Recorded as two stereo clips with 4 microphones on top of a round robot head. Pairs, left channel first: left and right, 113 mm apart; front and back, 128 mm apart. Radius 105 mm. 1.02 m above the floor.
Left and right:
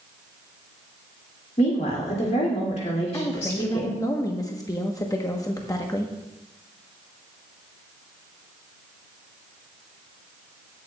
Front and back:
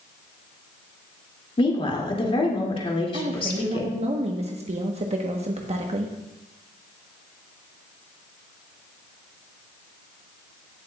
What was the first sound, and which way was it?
A woman speaking, 45° left.